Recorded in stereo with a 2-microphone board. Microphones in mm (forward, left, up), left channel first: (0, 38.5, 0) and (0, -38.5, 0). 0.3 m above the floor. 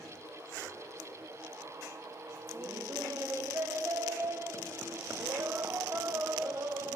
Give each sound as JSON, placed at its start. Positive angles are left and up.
{"t": 2.5, "sound": "laughter", "side_deg": -35, "distance_m": 1.7}